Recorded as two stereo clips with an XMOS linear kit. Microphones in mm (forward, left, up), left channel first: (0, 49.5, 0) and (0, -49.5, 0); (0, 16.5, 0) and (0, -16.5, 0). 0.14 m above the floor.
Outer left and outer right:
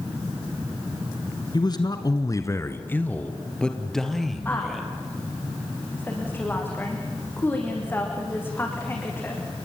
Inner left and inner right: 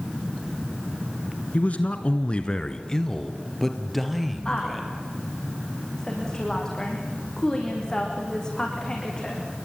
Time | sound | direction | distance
1.5 | a man speaking | 45° left (ahead or behind) | 1.9 m
4.5 | a woman speaking | 20° left (ahead or behind) | 7.5 m